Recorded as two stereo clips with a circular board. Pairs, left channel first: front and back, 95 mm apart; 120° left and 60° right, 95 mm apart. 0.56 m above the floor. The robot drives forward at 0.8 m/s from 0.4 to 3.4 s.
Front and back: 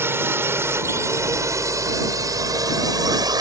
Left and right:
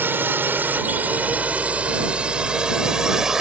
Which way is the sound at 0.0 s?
120° right.